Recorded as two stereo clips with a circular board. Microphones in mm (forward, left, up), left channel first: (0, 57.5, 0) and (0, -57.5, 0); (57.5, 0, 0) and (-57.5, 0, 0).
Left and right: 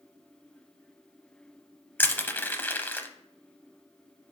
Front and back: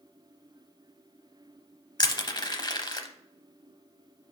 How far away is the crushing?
About 0.7 m.